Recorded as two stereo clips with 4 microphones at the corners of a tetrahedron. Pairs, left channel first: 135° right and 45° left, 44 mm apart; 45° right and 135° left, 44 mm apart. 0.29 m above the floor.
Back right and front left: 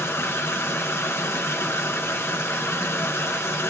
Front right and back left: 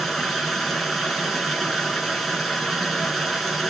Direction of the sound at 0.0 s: 135° right.